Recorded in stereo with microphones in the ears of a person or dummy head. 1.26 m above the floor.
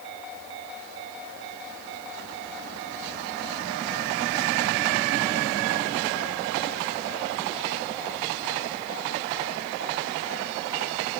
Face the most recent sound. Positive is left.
No sound to turn to.